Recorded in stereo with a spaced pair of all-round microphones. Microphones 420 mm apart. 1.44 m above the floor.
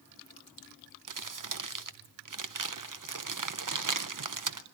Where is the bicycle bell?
No bicycle bell in this recording.